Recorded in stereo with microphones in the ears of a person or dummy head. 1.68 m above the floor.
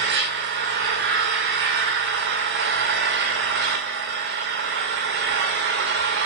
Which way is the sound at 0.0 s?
55° right (ahead or behind).